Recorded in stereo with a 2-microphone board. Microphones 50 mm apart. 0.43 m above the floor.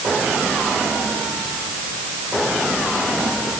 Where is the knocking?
No knocking in this recording.